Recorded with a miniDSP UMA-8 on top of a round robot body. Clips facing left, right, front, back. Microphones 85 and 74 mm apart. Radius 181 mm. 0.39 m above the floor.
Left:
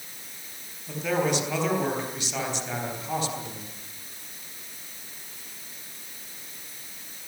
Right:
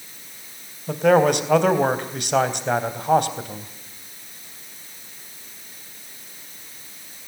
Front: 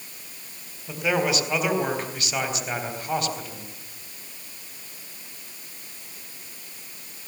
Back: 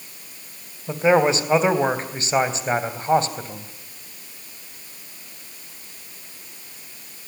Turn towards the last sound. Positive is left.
turn(degrees=-120)